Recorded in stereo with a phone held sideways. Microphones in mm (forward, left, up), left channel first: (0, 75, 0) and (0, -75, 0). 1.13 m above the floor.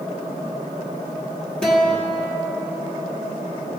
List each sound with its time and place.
1.6 s a guitar: 5° left (ahead or behind), 1.5 m